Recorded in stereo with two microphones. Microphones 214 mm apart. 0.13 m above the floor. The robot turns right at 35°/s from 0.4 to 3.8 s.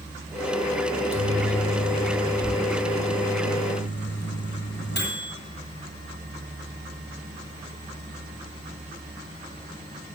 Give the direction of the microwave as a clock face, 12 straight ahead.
1 o'clock.